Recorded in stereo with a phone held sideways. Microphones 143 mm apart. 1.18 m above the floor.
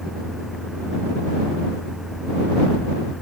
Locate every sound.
0.0 s a fan: centre (ahead or behind)